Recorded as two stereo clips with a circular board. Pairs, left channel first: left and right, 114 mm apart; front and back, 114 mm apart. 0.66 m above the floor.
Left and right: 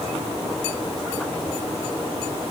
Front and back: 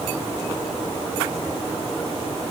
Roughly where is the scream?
I don't hear a scream.